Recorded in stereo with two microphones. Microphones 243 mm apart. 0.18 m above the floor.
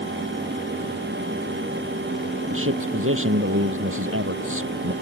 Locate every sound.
2.5 s a man speaking: 55° right (ahead or behind)